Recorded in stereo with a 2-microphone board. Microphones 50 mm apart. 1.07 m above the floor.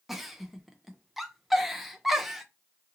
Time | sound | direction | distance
0.1 | a giggle | centre (ahead or behind) | 0.5 m